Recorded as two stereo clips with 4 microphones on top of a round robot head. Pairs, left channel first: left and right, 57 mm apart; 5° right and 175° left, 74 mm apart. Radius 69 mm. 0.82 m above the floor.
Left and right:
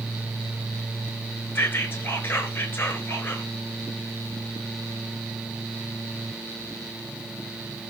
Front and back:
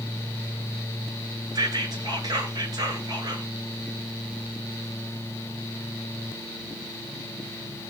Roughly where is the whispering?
Behind left.